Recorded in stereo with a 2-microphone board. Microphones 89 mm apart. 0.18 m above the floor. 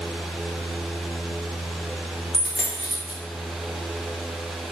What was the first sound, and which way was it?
A dropped coin, 10° left (ahead or behind).